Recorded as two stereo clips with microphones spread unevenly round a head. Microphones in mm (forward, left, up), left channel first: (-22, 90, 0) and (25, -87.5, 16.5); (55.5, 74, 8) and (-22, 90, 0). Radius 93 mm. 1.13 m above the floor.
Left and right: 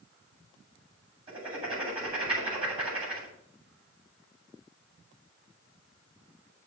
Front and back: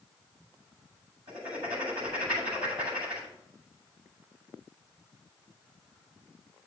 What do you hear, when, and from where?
1.3 s writing: 140° right, 7.5 m